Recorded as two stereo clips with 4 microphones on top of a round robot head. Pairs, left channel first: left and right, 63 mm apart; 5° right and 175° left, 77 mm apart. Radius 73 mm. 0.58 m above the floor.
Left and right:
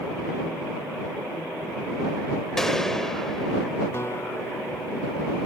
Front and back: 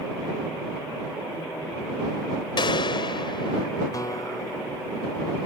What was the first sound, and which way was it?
A gunshot, 5° left.